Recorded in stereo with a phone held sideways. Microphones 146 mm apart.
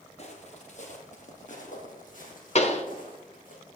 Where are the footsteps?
50° left (ahead or behind), 2.0 m; by 3.5 s 70° left (ahead or behind), 4 m.